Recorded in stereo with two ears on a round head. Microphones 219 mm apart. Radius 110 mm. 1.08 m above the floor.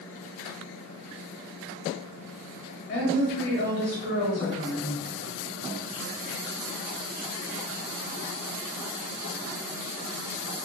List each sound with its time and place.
2.9 s a woman speaking: 40° left (ahead or behind), 1.1 m